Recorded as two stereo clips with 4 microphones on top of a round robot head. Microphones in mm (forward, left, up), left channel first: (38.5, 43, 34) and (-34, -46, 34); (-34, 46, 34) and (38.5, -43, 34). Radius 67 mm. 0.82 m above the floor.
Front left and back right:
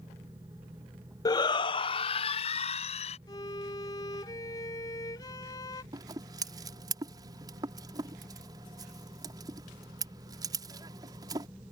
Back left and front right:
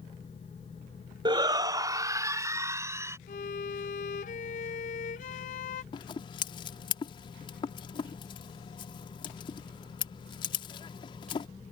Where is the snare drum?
I don't hear a snare drum.